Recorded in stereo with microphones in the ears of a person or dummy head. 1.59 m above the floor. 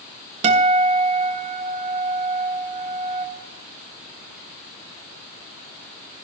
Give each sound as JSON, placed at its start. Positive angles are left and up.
{"t": 0.4, "sound": "a guitar", "side_deg": -35, "distance_m": 1.5}